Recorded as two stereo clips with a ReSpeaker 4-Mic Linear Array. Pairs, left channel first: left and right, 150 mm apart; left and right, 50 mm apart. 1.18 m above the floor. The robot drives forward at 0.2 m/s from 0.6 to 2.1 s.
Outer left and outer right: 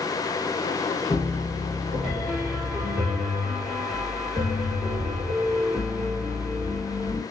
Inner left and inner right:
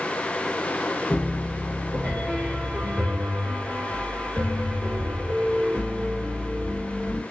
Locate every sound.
1.1 s a piano: centre (ahead or behind), 1.7 m